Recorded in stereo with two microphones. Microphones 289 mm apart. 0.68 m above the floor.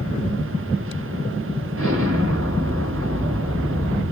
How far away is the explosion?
About 1.5 m.